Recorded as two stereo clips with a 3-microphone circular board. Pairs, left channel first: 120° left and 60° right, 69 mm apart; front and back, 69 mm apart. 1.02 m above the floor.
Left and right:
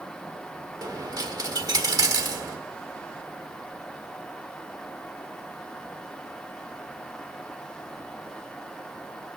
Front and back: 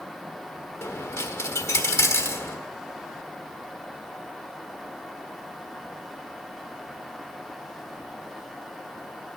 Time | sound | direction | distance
0.8 | a dropped coin | 45° right | 1.4 m